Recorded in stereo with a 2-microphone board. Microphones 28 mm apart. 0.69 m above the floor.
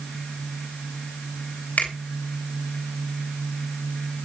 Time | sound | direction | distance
1.8 | a finger snap | 75° left (ahead or behind) | 4 m